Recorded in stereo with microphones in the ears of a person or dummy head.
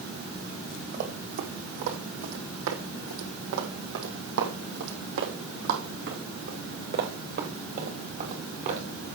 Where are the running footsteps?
40° right (ahead or behind), 3 m.